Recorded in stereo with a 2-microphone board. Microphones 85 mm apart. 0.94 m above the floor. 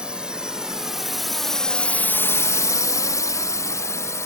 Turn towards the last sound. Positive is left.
turn(degrees=35)  # may be behind; listen again after turning